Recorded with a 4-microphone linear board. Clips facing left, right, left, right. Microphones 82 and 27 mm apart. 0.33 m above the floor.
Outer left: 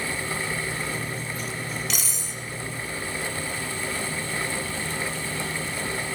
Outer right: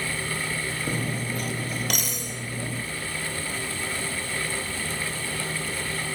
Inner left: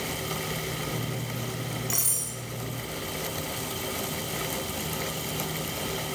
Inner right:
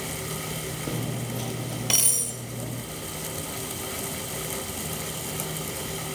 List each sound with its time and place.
0.9 s cutlery clinking: 55° right (ahead or behind), 4.5 m